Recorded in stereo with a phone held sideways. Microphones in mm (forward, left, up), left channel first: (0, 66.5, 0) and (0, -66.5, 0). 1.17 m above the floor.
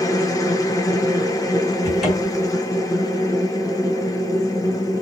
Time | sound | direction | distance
0.0 | a machine running | 25° left (ahead or behind) | 1.0 m
1.8 | a cupboard door | centre (ahead or behind) | 2.5 m